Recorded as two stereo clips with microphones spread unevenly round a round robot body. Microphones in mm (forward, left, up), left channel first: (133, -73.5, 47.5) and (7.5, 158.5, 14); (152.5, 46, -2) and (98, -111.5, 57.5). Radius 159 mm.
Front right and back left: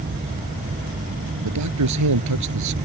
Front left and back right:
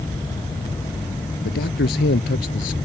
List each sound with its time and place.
1.4 s a man speaking: 110° left; by 2.8 s 120° left